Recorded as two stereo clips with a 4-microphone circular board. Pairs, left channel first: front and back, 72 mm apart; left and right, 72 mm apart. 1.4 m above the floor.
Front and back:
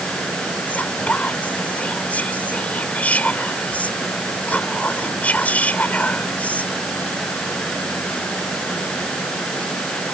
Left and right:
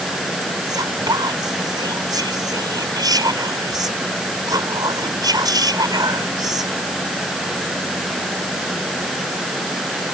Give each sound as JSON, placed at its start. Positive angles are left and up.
{"t": 0.7, "sound": "whispering", "azimuth_deg": -70}